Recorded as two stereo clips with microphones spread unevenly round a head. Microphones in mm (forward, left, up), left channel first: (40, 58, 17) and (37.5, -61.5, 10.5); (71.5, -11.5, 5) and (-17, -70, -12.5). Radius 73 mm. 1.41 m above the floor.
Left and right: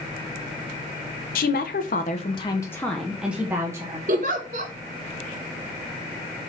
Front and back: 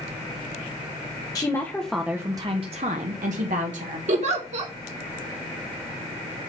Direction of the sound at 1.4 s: 105° left.